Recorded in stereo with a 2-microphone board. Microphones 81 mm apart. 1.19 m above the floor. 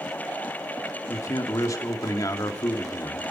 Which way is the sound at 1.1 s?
45° left (ahead or behind).